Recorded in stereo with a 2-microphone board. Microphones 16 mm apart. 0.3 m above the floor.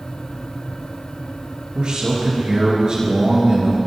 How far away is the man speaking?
About 5 m.